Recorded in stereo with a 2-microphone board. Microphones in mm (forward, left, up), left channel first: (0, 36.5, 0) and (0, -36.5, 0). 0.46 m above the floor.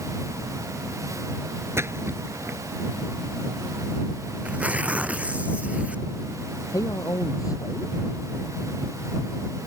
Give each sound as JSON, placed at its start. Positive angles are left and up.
{"t": 1.8, "sound": "a splash", "side_deg": -35}
{"t": 4.4, "sound": "tearing paper", "side_deg": -20}
{"t": 6.7, "sound": "a man speaking", "side_deg": 50}